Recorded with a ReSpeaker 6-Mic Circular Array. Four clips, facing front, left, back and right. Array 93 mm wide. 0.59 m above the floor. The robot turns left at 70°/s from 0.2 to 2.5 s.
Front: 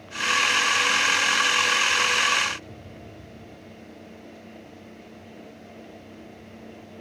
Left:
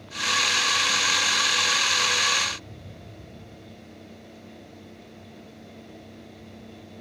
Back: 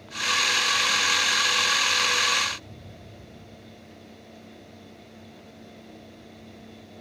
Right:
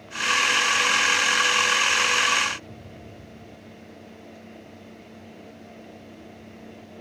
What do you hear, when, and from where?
Only background noise.